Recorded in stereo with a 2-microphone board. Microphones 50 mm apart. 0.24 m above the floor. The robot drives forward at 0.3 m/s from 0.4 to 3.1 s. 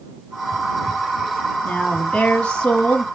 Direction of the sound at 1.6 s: 20° left (ahead or behind).